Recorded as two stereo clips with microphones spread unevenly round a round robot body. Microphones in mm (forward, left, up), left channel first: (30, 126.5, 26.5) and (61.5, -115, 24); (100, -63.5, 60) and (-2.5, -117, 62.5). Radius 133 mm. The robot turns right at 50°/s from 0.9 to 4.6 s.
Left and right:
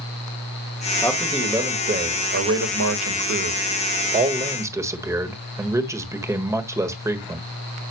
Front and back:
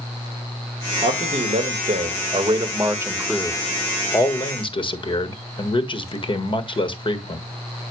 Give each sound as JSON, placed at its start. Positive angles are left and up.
{"t": 1.0, "sound": "a man speaking", "azimuth_deg": 175, "distance_m": 1.6}